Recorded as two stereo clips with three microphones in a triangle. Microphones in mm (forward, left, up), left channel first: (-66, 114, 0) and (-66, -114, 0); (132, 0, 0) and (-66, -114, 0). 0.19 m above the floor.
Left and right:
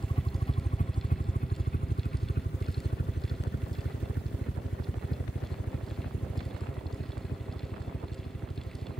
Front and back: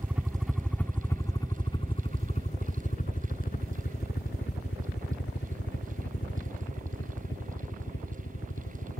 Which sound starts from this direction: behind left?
A helicopter, at 0.0 s.